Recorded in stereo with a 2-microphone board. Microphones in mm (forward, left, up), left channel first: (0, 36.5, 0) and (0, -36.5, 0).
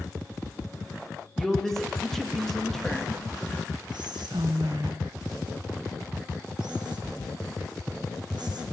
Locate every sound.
1.4 s a man speaking: 5° left (ahead or behind), 2 m
3.9 s whispering: 80° right, 0.8 m